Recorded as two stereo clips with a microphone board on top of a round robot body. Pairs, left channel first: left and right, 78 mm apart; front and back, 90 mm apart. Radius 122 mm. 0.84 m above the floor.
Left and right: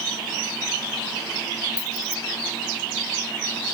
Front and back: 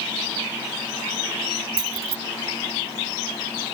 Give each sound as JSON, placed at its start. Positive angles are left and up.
{"t": 1.8, "sound": "keys jangling", "azimuth_deg": 165}